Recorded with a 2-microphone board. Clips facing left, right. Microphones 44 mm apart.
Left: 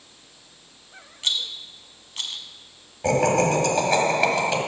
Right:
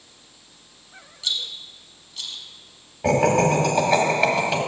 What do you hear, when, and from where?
1.2 s a rattle: 55° left (ahead or behind), 0.6 m
3.0 s laughter: 5° right (ahead or behind), 1.2 m